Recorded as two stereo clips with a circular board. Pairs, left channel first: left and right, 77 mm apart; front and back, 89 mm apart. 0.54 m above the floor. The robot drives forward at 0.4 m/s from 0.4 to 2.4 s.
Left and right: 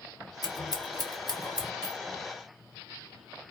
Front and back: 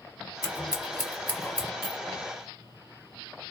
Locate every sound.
0.4 s scissors: 60° left, 1.6 m; by 1.7 s 80° left, 1.4 m
1.8 s a clink: 175° right, 1.4 m